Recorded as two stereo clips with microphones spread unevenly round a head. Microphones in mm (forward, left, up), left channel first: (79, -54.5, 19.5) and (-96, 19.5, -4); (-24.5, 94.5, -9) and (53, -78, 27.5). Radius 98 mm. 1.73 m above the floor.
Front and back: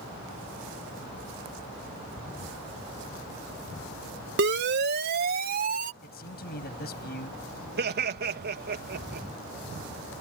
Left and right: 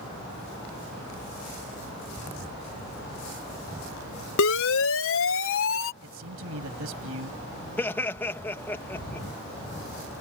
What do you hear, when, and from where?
4.4 s a siren: 120° left; by 5.9 s 105° left
6.0 s a man speaking: 60° right
7.8 s laughter: 165° right